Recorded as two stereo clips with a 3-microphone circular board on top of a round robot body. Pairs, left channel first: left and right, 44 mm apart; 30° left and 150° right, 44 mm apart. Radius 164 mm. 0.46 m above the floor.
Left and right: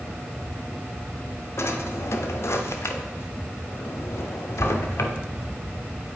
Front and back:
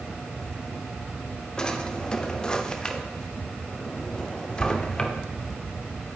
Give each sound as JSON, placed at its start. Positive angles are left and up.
{"t": 1.6, "sound": "a drawer", "azimuth_deg": 100, "distance_m": 0.8}